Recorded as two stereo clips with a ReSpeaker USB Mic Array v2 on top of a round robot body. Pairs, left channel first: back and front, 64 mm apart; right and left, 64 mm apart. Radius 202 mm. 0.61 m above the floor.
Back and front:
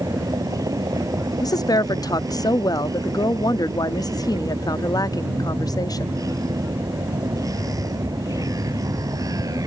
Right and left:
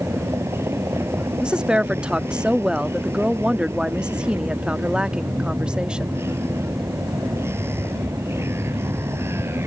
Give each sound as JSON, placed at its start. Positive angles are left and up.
{"t": 0.0, "sound": "a vehicle", "azimuth_deg": 35}
{"t": 1.4, "sound": "a woman speaking", "azimuth_deg": 165}